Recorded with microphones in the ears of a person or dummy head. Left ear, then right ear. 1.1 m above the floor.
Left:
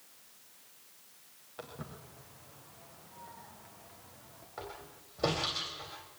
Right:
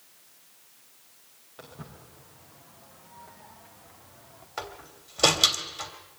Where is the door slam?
70° right (ahead or behind), 2.5 m.